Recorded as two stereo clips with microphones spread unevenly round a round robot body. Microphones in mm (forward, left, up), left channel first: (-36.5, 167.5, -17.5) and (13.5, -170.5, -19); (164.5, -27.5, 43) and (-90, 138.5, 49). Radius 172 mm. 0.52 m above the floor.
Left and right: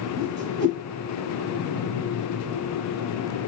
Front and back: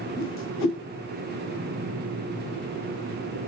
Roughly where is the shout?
No shout in this recording.